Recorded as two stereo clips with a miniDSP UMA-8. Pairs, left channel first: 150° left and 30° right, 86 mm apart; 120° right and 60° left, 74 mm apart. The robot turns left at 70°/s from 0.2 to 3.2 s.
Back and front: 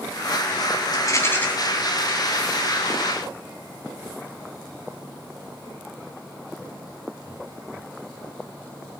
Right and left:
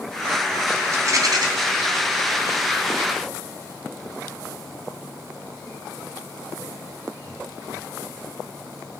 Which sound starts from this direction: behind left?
A rattle, at 0.9 s.